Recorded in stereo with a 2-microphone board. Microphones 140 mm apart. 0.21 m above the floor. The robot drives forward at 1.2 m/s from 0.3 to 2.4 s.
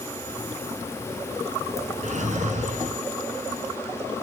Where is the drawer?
60° right (ahead or behind), 1.5 m.